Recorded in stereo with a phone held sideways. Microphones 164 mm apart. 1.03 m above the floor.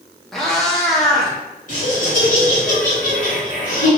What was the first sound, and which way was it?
A cat meowing, centre (ahead or behind).